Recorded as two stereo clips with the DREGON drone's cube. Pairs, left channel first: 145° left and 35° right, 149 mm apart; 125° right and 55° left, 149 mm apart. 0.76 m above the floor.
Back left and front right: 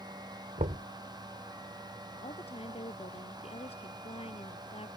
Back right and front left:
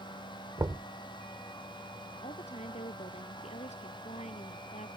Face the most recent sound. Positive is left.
turn(degrees=-165)